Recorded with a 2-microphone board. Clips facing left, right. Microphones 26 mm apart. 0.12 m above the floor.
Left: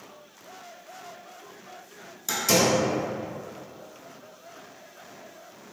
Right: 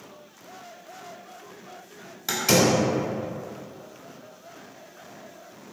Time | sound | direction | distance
2.3 | a door slam | 30° right (ahead or behind) | 1.1 m